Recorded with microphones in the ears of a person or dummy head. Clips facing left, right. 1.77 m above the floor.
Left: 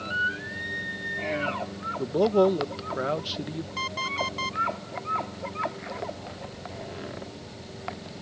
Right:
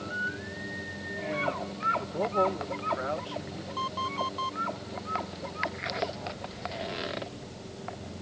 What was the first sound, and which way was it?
A man speaking, 50° left (ahead or behind).